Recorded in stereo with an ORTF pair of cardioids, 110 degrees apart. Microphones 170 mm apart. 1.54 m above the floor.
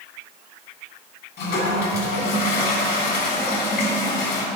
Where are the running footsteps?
I don't hear running footsteps.